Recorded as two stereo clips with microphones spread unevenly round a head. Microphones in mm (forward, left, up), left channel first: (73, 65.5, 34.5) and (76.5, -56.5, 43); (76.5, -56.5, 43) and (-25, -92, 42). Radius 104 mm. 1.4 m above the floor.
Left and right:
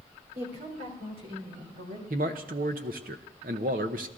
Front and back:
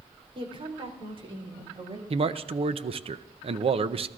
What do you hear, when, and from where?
0.3 s a woman speaking: 125° right, 3.5 m
2.1 s a man speaking: 130° right, 0.6 m